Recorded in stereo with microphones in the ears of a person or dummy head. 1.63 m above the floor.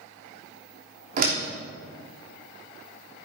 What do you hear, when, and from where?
1.2 s a door slam: 40° right (ahead or behind), 3 m